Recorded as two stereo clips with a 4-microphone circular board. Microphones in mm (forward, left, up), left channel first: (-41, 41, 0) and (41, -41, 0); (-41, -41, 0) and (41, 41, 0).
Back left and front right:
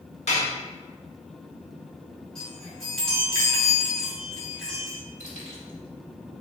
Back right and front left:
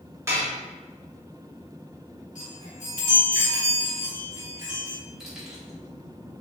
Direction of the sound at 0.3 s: 115° left.